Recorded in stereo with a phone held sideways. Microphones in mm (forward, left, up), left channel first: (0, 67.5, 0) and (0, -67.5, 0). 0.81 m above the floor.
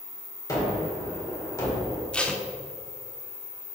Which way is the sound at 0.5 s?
25° left (ahead or behind).